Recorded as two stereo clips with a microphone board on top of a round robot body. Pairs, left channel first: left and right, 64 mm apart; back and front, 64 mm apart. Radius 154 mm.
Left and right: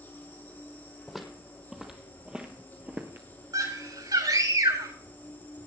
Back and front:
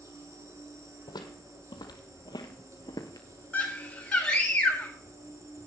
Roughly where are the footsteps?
Behind.